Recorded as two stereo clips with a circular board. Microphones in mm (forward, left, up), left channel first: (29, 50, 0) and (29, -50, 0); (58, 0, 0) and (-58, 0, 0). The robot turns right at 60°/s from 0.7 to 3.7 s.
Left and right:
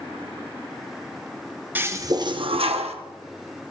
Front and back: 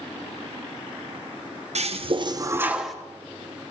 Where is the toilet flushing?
160° right, 1.1 m; by 3.0 s 90° right, 1.1 m.